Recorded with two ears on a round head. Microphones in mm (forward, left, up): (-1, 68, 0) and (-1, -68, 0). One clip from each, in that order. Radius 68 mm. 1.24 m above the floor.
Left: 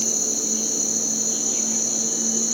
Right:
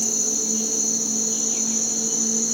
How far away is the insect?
About 1.4 m.